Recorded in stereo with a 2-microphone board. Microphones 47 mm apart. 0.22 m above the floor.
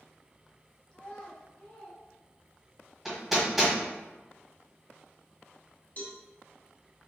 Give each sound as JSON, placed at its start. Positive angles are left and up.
{"t": 0.9, "sound": "a child speaking", "side_deg": 15, "distance_m": 0.7}
{"t": 3.0, "sound": "hammering", "side_deg": -5, "distance_m": 1.4}
{"t": 6.0, "sound": "a cowbell", "side_deg": 40, "distance_m": 1.0}